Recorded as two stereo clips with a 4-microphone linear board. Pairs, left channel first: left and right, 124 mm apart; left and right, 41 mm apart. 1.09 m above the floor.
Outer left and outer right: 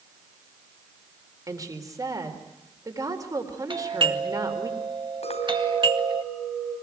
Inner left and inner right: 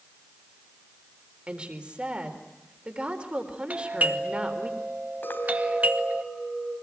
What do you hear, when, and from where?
1.5 s a woman speaking: 30° right (ahead or behind), 4 m
3.7 s a doorbell: 40° right (ahead or behind), 2 m
5.2 s a clink: 55° left (ahead or behind), 4 m